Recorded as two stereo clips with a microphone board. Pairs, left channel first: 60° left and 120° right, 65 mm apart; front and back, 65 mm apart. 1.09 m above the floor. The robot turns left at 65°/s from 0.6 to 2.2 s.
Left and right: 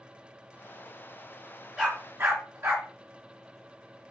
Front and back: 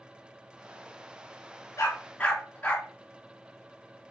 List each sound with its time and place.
1.8 s a dog barking: 40° right, 3.5 m; by 2.9 s 65° right, 3.5 m